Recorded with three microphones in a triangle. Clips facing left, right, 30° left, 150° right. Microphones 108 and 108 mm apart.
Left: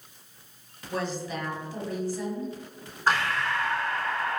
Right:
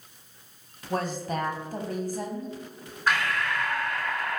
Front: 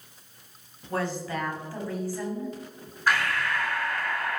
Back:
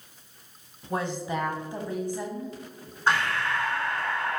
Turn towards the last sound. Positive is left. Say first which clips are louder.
# left 1 dB, back 1 dB
turn(degrees=150)